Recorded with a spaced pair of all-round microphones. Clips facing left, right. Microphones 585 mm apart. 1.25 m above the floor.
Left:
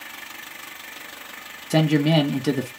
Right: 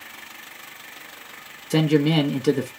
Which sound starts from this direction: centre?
A man speaking, at 1.7 s.